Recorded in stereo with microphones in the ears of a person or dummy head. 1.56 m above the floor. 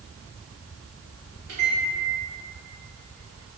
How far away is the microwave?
About 0.8 m.